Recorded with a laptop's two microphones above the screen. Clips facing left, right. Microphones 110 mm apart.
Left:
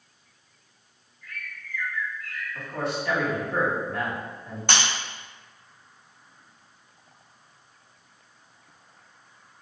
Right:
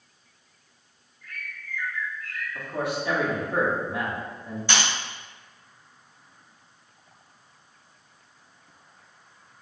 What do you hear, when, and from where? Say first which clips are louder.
1.2 s a bird: even; 45° right (ahead or behind), 1.5 m
2.5 s a man speaking: right 1 dB; 15° right (ahead or behind), 1.1 m
4.7 s breaking glass: left 1 dB; 60° left (ahead or behind), 1.0 m